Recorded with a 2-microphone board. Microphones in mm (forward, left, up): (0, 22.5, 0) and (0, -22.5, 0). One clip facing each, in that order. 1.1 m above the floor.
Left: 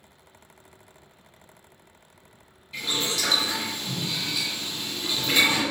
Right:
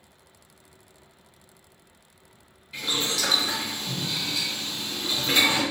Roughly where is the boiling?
Centre.